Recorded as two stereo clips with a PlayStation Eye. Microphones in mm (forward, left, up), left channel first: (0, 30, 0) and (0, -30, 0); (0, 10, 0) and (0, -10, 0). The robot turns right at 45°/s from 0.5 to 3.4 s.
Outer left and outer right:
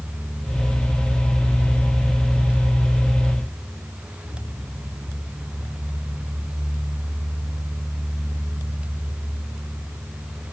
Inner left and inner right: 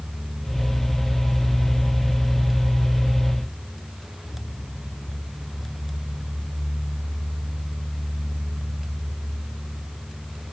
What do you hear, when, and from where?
Only background noise.